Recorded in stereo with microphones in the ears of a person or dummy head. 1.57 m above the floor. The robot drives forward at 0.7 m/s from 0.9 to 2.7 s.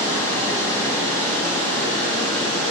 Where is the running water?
10° left (ahead or behind), 1.3 m; by 2.7 s 5° left (ahead or behind), 2.5 m.